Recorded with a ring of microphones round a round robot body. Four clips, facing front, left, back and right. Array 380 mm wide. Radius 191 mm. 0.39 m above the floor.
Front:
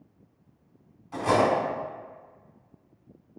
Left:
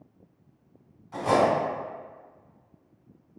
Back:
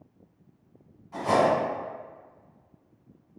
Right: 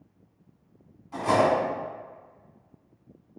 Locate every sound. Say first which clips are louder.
1.1 s cutlery clinking: even, even; straight ahead, 2.0 m